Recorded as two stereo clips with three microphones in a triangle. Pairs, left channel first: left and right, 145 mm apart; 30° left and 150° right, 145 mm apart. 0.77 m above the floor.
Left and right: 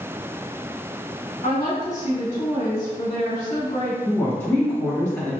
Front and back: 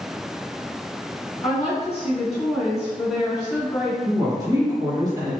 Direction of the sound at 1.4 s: 65° left.